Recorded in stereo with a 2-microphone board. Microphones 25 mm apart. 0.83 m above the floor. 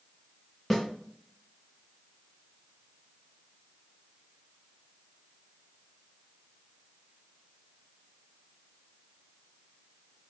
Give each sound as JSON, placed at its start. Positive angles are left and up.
{"t": 0.7, "sound": "a snare drum", "side_deg": 10, "distance_m": 2.0}